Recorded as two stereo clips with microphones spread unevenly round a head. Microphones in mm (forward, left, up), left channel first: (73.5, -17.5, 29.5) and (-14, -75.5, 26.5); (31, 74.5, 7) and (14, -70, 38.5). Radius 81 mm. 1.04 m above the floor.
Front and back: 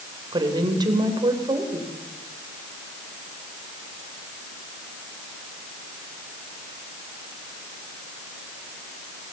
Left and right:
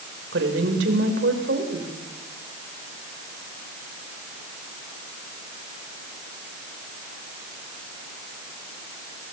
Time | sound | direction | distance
0.3 | a woman speaking | 95° right | 3.5 m